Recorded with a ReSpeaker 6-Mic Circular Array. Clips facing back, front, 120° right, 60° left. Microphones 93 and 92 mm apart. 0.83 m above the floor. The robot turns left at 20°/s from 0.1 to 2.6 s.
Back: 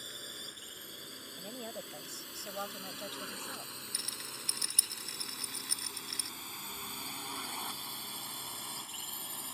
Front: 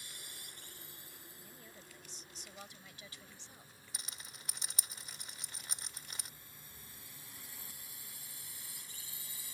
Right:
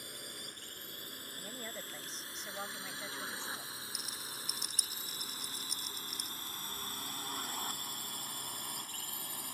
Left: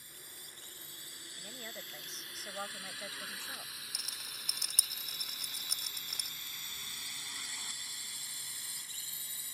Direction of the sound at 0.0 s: 140° right.